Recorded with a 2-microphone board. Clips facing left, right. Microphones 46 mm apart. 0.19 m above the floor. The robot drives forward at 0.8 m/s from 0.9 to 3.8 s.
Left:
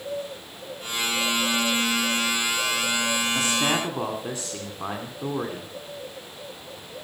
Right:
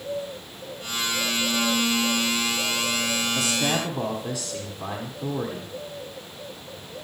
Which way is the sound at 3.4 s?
30° left (ahead or behind).